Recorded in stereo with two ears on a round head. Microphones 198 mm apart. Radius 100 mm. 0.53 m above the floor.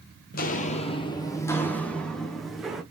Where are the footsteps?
40° left (ahead or behind), 0.6 m; by 2.8 s centre (ahead or behind), 1.6 m.